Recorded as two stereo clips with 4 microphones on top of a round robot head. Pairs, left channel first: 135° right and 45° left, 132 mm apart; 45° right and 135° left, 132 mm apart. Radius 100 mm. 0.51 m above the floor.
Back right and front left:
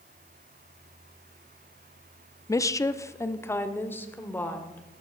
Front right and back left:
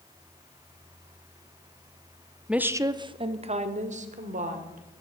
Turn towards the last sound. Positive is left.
turn(degrees=145)